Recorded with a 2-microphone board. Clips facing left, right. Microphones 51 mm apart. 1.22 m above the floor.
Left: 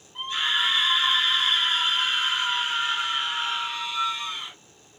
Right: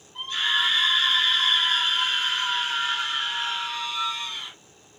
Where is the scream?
15° left (ahead or behind), 1.0 m.